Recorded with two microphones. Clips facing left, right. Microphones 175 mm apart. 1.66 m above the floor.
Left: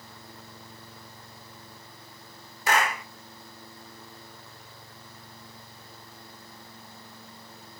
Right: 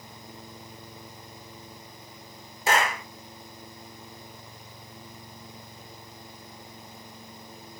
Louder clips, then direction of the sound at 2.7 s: Right 1 dB; 25° right (ahead or behind).